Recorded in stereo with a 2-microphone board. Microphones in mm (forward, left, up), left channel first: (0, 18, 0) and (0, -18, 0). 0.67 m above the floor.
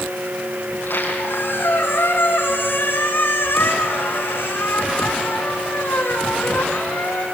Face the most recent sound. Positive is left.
turn(degrees=80)